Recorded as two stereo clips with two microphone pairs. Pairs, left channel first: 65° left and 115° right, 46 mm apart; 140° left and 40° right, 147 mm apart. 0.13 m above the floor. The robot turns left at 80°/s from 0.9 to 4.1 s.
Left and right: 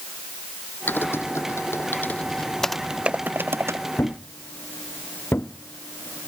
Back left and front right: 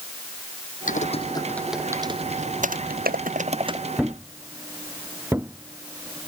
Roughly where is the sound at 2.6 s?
Ahead.